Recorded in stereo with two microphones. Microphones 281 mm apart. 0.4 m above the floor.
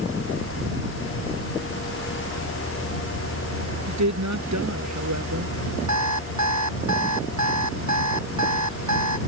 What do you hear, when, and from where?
3.9 s a woman speaking: 80° right
5.9 s an alarm clock: 80° right